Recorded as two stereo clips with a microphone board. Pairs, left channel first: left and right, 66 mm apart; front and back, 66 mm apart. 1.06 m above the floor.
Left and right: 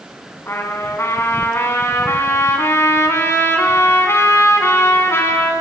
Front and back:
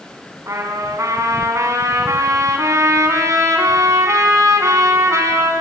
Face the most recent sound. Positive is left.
turn(degrees=145)